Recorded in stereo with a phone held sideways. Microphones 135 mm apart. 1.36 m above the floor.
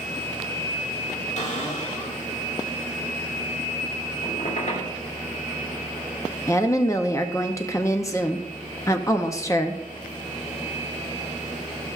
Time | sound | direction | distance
1.4 | a cupboard door | 55° left (ahead or behind) | 1.9 m
4.2 | a squeak | 65° left (ahead or behind) | 2.5 m
6.5 | a woman speaking | 20° left (ahead or behind) | 0.6 m